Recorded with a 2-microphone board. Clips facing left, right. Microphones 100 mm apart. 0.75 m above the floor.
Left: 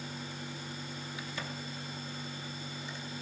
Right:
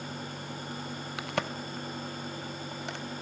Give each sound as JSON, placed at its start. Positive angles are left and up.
{"t": 1.2, "sound": "a crack", "side_deg": -70, "distance_m": 0.8}